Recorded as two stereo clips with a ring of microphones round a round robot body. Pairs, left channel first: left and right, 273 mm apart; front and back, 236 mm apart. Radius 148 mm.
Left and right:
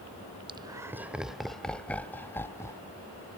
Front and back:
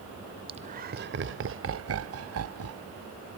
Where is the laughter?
140° right; by 2.9 s 170° left.